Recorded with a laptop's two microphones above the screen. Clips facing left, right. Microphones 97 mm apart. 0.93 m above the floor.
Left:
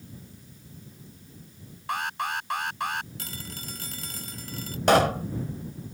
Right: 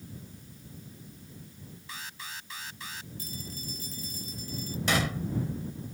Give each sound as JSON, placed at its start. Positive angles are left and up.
{"t": 1.9, "sound": "an alarm", "side_deg": 60}
{"t": 3.2, "sound": "a phone ringing", "side_deg": 90}
{"t": 4.9, "sound": "a pop", "side_deg": 55}